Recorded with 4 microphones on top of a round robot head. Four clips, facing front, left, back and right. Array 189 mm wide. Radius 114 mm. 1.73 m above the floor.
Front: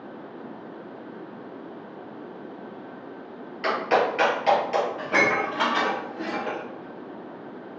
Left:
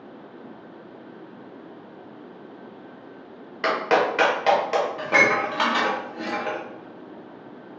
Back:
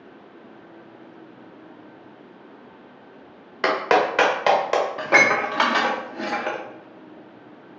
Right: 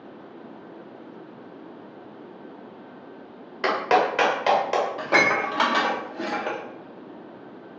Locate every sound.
3.6 s a clap: straight behind, 1.1 m
5.0 s dishes clattering: 160° right, 0.8 m